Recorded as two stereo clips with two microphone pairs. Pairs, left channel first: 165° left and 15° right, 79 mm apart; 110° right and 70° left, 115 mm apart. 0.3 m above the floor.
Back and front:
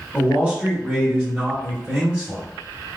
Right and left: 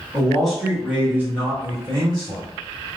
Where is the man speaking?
55° right, 1.4 m; by 2.4 s 55° left, 1.8 m.